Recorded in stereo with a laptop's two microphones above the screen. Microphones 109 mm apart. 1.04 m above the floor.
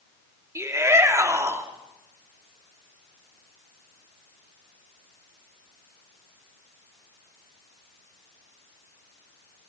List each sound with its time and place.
0.6 s a shout: 25° right (ahead or behind), 3 m